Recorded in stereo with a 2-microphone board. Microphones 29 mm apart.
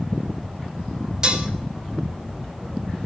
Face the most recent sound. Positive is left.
turn(degrees=-30)  # may be behind; listen again after turning